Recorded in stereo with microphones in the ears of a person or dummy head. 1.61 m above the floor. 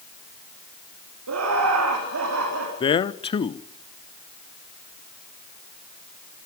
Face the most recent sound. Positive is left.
turn(degrees=25)  # may be behind; listen again after turning